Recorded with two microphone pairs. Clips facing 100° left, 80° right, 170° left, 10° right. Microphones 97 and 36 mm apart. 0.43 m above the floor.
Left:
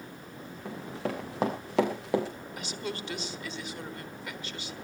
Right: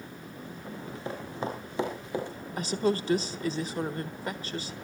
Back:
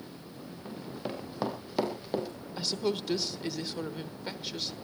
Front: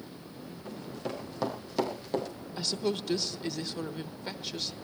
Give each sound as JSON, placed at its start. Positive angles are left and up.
{"t": 0.7, "sound": "running footsteps", "azimuth_deg": 100, "distance_m": 4.5}
{"t": 2.6, "sound": "a woman speaking", "azimuth_deg": -110, "distance_m": 1.3}